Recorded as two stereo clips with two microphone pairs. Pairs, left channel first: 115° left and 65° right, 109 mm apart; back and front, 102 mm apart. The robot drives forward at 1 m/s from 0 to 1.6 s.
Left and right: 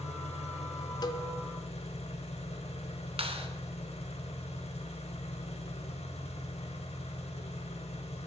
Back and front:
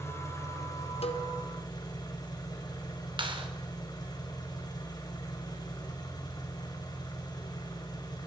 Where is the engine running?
115° left, 4.5 m; by 8.3 s 130° left, 5.5 m.